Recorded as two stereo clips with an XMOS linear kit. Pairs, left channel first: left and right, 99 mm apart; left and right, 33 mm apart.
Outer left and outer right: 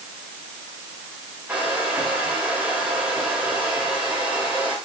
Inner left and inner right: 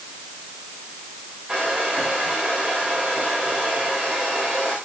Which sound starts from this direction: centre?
A hair dryer, at 1.5 s.